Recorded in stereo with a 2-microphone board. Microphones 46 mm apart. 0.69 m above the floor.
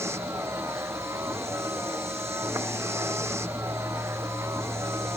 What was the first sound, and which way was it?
A vehicle, 75° right (ahead or behind).